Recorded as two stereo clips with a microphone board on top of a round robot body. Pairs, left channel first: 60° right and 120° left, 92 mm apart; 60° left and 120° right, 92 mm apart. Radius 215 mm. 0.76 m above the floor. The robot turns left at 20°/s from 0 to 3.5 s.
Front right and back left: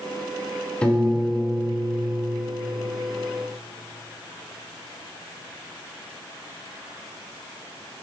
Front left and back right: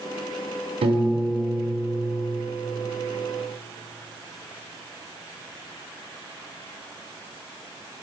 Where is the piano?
140° right, 1.4 m; by 2.4 s 170° right, 1.4 m.